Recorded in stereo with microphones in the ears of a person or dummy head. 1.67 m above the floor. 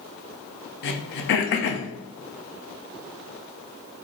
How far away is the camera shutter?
No camera shutter in this recording.